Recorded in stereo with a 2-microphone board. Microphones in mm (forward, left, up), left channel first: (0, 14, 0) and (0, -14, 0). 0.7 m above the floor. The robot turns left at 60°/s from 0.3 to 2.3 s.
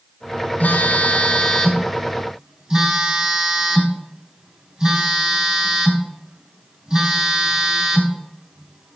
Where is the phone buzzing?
70° left, 2.5 m; by 9.0 s 30° right, 2.5 m.